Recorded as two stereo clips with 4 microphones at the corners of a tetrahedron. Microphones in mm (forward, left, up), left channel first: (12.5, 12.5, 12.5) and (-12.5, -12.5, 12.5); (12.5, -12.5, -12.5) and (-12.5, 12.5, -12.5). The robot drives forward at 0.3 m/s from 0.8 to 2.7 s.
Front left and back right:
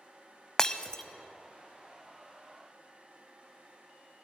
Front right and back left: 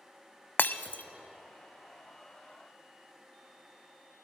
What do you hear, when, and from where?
0.6 s breaking glass: 25° right, 0.5 m; by 1.0 s 30° right, 0.5 m